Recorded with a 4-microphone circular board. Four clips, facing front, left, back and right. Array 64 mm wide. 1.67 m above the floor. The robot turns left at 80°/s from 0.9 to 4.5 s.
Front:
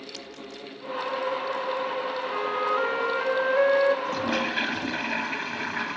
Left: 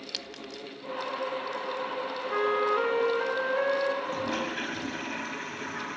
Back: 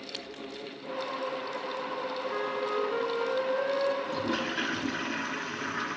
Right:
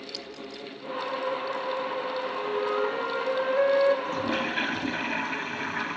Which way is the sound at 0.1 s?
115° left.